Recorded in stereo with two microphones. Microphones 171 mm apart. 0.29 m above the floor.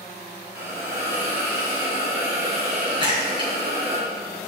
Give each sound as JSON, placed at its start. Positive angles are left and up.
{"t": 0.6, "sound": "a hiss", "side_deg": -75, "distance_m": 3.0}
{"t": 3.0, "sound": "a splash", "side_deg": -30, "distance_m": 3.0}